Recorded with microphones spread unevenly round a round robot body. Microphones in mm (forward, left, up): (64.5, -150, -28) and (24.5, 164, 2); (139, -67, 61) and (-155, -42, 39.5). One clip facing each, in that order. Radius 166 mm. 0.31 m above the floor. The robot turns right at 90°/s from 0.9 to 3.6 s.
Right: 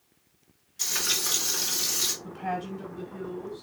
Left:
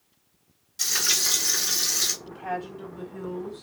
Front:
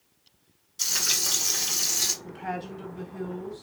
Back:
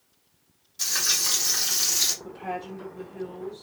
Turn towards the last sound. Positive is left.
turn(degrees=45)